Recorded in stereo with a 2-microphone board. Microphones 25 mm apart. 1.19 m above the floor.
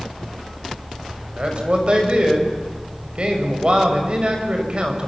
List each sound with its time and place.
1.4 s a man speaking: 40° right (ahead or behind), 6 m